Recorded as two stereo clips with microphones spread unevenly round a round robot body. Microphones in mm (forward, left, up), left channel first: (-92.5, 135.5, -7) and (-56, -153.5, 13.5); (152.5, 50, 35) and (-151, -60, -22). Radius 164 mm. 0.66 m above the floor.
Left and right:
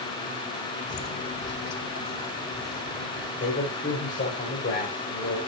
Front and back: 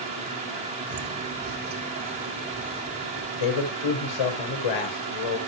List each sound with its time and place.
0.9 s footsteps: 140° left, 1.0 m; by 3.2 s 130° left, 3 m
3.4 s a man speaking: 30° left, 3 m